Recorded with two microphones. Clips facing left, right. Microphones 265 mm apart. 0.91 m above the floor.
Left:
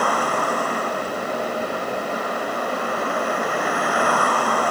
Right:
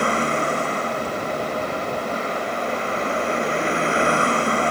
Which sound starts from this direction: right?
A vehicle, at 0.0 s.